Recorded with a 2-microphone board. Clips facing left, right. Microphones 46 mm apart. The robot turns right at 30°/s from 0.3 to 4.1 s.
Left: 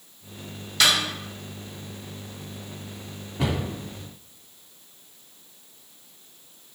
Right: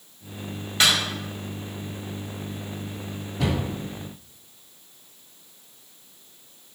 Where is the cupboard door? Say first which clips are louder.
Right 1 dB; 25° left (ahead or behind), 1.9 m; by 3.6 s 30° left (ahead or behind), 1.9 m.